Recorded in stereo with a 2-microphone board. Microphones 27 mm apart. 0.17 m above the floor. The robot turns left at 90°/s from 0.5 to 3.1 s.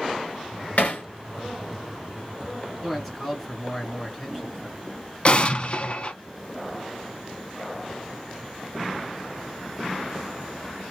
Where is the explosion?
40° left (ahead or behind), 0.6 m.